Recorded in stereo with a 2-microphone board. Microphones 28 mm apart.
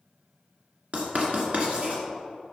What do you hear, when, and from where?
0.9 s writing: 50° right (ahead or behind), 2 m